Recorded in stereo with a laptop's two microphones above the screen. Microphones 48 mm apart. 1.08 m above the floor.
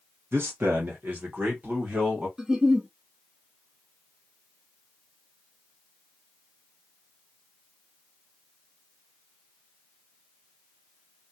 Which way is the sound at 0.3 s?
55° right (ahead or behind).